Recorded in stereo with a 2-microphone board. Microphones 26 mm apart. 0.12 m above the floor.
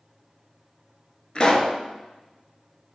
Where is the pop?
35° left (ahead or behind), 0.5 m.